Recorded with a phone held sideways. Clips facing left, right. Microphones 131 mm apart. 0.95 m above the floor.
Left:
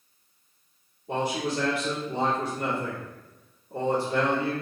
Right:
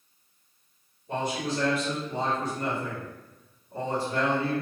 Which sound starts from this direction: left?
A man speaking, at 1.1 s.